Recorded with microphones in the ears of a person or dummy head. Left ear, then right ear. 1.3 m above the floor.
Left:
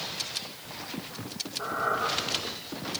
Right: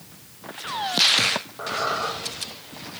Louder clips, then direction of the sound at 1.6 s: Left 1 dB; 25° right (ahead or behind).